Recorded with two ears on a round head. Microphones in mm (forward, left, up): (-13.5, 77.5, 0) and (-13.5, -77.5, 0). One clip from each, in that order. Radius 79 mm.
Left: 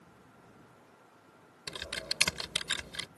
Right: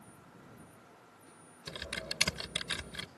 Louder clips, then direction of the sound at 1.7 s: Left 3 dB; 30° left (ahead or behind).